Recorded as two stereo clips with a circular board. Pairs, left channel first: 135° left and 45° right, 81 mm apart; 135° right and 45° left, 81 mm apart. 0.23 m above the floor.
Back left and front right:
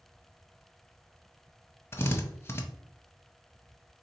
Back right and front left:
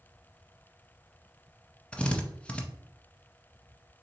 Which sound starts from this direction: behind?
A drill, at 1.9 s.